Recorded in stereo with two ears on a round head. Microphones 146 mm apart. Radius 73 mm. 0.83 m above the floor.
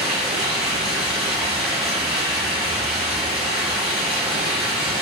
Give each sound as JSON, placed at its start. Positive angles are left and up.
{"t": 0.0, "sound": "running water", "side_deg": -5, "distance_m": 1.9}